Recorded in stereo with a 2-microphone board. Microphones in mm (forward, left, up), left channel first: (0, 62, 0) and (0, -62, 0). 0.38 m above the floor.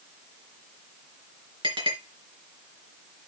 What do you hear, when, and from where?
1.6 s a clink: 45° right (ahead or behind), 4 m